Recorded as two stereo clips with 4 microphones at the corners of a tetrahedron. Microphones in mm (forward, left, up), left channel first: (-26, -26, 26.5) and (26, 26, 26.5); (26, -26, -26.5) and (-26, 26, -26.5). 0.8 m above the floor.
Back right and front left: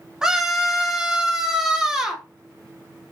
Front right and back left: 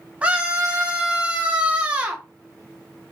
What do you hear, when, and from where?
0.2 s a scream: 110° left, 0.8 m